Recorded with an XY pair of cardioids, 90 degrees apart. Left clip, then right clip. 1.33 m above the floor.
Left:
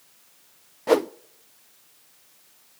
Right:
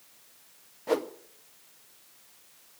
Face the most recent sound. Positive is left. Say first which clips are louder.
# left 8 dB
turn(degrees=60)